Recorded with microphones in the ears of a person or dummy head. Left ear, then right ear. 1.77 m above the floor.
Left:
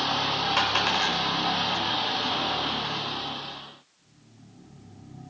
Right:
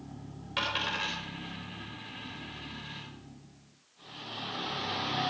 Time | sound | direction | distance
0.6 | a dropped coin | 40° left (ahead or behind) | 4 m